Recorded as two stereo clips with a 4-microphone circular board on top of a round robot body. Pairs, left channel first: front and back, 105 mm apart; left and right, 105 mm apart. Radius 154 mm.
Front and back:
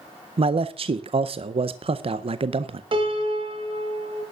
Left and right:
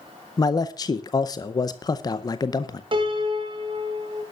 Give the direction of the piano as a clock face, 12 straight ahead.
5 o'clock.